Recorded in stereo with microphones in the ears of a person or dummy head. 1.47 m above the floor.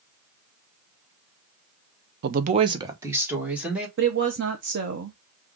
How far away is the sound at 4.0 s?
About 0.8 m.